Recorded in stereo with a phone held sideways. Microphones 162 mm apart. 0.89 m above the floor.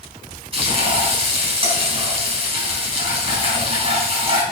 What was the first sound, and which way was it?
Frying, 35° right (ahead or behind).